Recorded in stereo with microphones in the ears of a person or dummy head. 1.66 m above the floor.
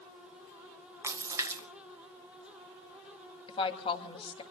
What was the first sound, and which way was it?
A splash, 15° right (ahead or behind).